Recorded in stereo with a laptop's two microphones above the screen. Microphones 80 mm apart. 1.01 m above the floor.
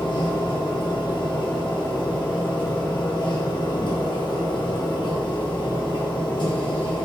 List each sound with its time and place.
0.0 s a machine running: 75° left (ahead or behind), 0.7 m